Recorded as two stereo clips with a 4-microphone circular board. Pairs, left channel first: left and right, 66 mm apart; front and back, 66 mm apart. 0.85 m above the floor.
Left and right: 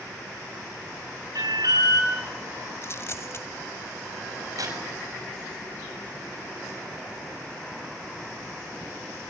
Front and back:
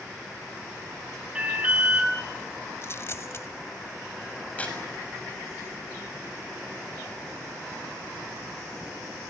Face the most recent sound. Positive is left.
turn(degrees=-70)